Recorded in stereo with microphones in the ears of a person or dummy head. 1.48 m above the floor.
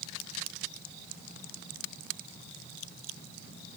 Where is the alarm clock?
I don't hear an alarm clock.